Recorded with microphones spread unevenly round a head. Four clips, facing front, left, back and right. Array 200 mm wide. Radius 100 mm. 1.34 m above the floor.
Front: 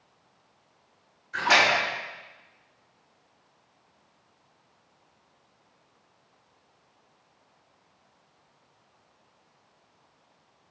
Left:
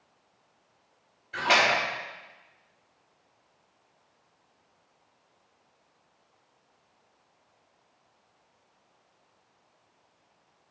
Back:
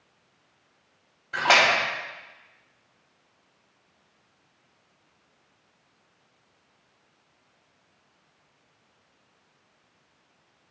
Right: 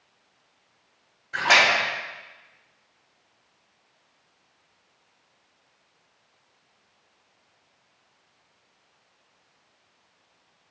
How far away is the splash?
About 3.5 m.